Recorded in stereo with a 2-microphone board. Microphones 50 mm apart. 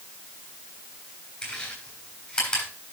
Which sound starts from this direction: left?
Chewing, at 1.4 s.